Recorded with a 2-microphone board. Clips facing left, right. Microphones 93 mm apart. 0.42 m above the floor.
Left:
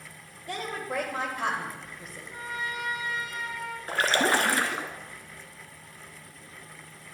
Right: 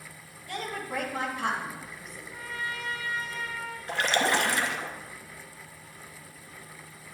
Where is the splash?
45° left (ahead or behind), 0.7 m.